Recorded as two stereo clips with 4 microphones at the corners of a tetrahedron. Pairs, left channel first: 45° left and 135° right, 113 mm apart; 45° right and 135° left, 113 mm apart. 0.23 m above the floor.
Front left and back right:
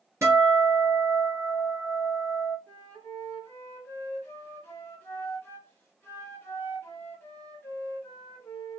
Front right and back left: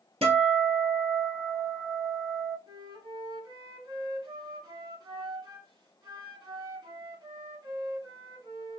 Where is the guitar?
160° left, 1.6 m.